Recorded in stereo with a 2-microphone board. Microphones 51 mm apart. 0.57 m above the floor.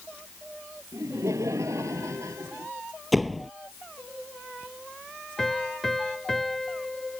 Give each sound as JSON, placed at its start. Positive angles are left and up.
{"t": 0.9, "sound": "laughter", "side_deg": -80}
{"t": 3.1, "sound": "a door slam", "side_deg": 0}
{"t": 5.4, "sound": "a piano", "side_deg": 5}